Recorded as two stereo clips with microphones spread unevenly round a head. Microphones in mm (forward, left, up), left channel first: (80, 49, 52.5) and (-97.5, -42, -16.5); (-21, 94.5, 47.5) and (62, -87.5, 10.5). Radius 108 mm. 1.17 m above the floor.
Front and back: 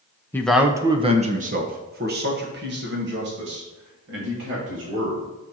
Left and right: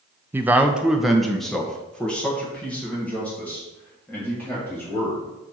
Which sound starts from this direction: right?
A man speaking, at 0.3 s.